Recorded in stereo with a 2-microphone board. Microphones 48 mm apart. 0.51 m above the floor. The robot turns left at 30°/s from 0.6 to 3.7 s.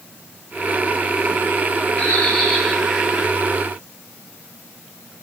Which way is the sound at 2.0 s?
25° left.